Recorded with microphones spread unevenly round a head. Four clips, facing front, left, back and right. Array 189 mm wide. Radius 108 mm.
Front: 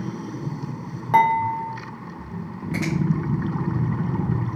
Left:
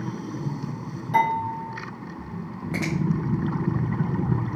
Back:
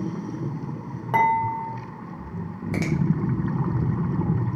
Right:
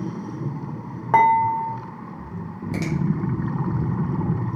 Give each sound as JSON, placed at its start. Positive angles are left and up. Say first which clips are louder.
{"t": 1.1, "sound": "dishes clattering", "louder": "right 6 dB, front 3 dB", "azimuth_deg": -70, "distance_m": 0.9}
{"t": 2.7, "sound": "a finger snap", "louder": "right 1 dB, front 1 dB", "azimuth_deg": 155, "distance_m": 0.6}